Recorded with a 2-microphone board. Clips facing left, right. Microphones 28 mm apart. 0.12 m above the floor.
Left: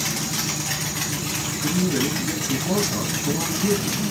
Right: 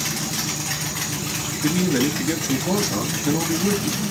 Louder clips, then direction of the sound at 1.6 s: Right 3 dB; 30° right (ahead or behind).